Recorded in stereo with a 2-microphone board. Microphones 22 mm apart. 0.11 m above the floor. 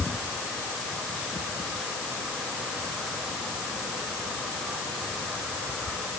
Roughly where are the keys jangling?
I don't hear keys jangling.